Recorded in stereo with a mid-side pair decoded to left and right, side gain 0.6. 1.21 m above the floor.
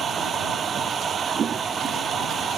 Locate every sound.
0.0 s a machine running: 40° right